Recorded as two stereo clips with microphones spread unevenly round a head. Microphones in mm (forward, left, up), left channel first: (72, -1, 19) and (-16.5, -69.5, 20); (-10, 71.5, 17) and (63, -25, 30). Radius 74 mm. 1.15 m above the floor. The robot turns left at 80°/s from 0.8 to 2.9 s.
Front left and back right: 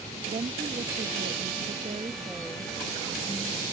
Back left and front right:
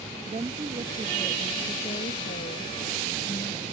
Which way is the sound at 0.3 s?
105° right.